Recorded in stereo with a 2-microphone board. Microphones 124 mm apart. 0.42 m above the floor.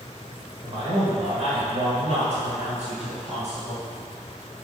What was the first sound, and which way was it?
A man speaking, 40° right (ahead or behind).